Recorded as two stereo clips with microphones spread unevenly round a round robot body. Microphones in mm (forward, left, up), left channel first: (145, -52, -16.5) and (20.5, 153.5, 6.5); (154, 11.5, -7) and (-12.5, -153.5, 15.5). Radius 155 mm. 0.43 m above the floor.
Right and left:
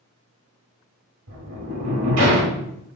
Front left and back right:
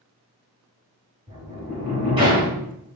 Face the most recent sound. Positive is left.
turn(degrees=150)